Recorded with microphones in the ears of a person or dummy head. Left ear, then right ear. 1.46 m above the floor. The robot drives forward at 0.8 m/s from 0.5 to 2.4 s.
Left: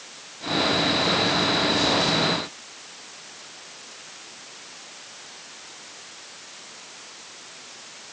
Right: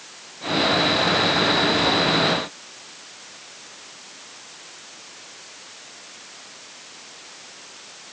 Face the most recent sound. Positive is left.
No sound to turn to.